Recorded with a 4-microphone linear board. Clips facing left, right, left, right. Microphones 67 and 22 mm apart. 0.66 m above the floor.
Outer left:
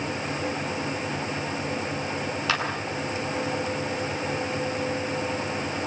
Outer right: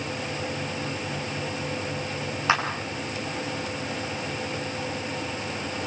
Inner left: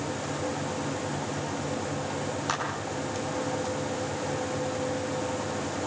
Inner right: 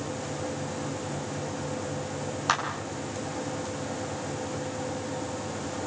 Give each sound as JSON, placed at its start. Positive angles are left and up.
{"t": 2.5, "sound": "a clap", "side_deg": -20, "distance_m": 7.0}